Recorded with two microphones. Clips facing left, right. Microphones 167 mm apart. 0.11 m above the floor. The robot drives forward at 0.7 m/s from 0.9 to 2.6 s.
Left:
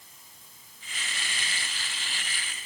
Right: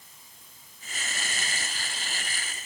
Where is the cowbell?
I don't hear a cowbell.